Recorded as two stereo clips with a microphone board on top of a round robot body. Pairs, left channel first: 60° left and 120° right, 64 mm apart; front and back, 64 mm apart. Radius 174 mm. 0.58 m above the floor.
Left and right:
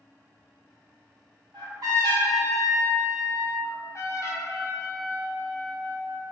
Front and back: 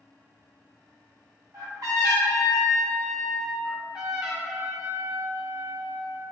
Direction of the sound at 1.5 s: 145° right.